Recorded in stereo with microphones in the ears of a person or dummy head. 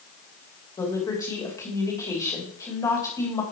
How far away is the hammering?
I don't hear hammering.